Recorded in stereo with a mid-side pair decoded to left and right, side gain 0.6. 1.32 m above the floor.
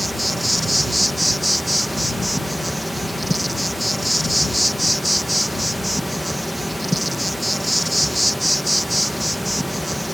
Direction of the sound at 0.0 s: Straight ahead.